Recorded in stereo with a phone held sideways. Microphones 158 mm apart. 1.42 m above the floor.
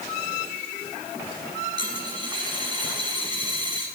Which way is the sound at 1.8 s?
30° right (ahead or behind).